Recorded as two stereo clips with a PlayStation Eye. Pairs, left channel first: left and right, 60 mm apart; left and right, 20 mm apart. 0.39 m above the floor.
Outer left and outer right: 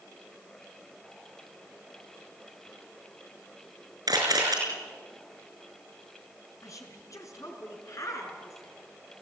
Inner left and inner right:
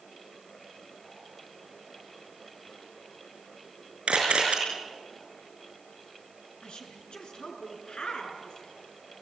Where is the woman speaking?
60° left (ahead or behind), 4.5 m.